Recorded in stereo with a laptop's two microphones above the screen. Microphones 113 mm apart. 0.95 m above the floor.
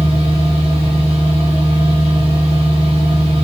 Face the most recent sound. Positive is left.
turn(degrees=-60)  # may be behind; listen again after turning